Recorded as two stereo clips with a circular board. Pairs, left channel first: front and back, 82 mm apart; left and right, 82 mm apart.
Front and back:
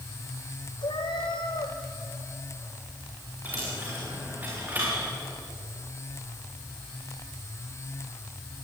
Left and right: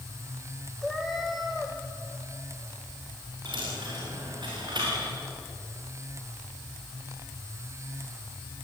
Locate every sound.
0.8 s a cat meowing: straight ahead, 2.5 m
3.5 s a dropped coin: 110° right, 6 m